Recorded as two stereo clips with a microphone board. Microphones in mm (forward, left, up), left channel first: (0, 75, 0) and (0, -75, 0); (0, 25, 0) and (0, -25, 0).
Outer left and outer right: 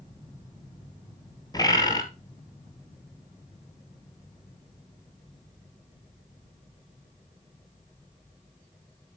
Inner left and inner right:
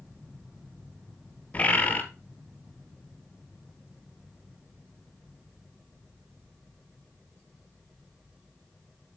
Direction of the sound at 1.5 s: 25° left (ahead or behind).